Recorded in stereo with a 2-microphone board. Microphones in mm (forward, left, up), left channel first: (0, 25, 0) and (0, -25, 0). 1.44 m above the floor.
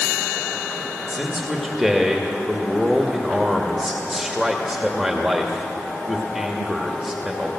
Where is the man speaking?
5° right (ahead or behind), 2 m.